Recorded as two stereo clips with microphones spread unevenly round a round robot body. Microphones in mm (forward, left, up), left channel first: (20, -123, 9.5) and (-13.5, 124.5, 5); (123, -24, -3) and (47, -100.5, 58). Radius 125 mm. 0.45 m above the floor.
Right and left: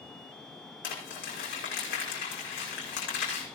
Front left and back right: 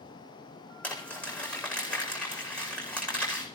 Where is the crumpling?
35° right, 8 m.